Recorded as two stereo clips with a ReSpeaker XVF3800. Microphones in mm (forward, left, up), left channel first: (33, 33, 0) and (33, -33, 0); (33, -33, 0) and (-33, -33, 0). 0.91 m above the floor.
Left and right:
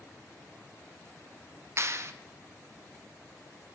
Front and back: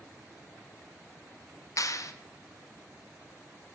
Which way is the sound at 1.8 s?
40° right.